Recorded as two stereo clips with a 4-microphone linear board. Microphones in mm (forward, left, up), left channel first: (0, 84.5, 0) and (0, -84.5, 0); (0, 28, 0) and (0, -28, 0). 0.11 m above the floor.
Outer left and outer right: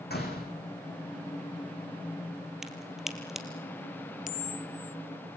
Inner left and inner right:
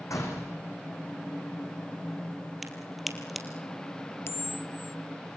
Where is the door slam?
75° left (ahead or behind), 6 m.